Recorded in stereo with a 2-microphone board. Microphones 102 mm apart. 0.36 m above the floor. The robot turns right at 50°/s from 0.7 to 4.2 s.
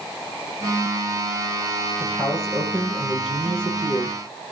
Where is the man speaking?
170° right, 8.5 m; by 4.2 s 60° right, 8.5 m.